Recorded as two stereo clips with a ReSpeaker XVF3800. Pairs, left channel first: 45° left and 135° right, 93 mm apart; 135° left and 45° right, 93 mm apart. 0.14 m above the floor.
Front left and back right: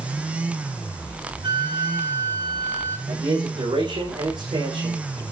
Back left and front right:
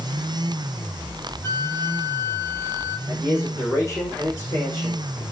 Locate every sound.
1.4 s a flute: 165° right, 4.5 m
3.1 s a man speaking: 160° right, 6.5 m